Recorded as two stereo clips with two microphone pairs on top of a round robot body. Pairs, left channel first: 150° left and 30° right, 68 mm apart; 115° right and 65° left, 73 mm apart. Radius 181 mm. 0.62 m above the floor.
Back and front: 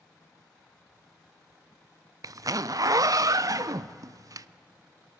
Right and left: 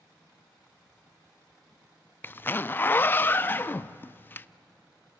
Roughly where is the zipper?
Ahead right.